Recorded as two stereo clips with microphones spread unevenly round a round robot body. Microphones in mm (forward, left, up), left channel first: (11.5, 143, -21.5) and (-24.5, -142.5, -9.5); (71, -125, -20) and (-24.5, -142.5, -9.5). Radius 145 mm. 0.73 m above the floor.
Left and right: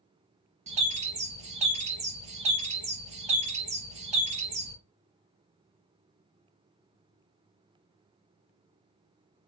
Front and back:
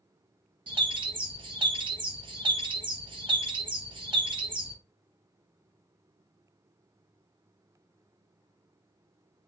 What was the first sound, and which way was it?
A bird, 160° right.